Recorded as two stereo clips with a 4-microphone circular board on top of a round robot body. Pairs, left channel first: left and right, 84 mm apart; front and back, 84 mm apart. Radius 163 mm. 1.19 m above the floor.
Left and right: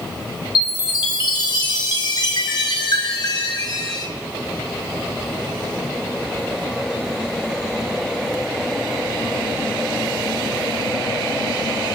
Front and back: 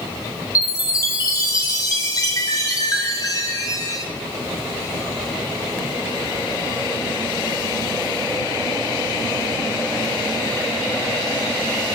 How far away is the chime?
About 3 m.